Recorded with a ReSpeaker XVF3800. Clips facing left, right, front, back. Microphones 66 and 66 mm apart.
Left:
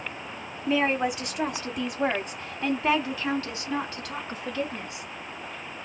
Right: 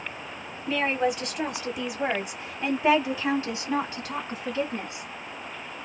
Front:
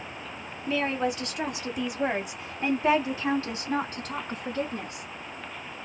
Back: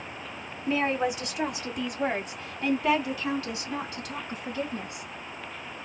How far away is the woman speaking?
About 1.5 m.